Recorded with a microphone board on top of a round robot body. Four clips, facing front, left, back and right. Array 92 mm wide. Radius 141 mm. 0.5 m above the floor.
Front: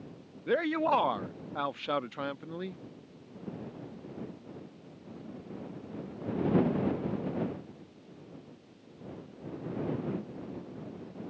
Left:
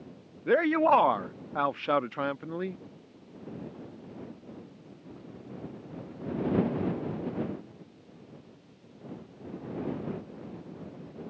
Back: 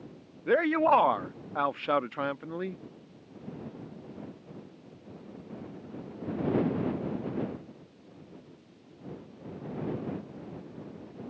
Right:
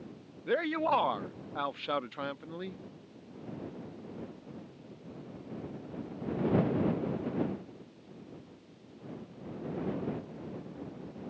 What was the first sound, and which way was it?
A man speaking, 135° left.